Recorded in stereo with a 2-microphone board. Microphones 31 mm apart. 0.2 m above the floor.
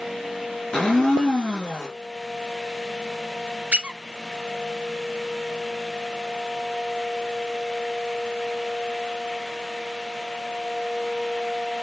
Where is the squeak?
40° right (ahead or behind), 0.5 m.